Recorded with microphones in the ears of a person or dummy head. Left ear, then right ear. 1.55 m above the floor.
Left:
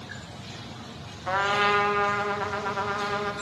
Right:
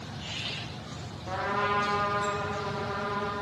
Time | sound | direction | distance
1.3 | a trumpet | 50° left (ahead or behind) | 0.6 m